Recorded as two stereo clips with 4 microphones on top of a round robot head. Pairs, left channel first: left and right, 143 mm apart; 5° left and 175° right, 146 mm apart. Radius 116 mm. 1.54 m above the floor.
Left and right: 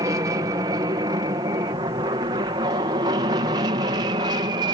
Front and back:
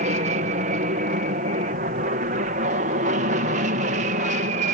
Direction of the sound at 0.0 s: 155° right.